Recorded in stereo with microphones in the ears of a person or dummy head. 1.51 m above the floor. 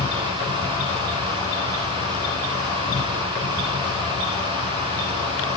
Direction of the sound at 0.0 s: 15° left (ahead or behind).